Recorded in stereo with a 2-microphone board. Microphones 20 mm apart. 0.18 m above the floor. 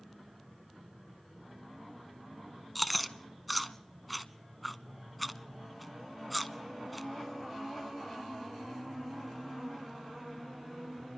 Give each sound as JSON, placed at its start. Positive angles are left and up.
{"t": 2.8, "sound": "chewing", "side_deg": 0, "distance_m": 0.7}